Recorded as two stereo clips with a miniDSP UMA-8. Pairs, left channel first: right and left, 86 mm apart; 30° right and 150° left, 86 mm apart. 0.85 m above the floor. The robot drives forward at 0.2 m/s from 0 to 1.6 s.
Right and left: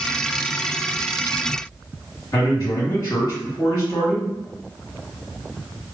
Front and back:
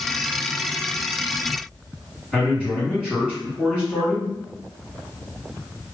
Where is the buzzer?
No buzzer in this recording.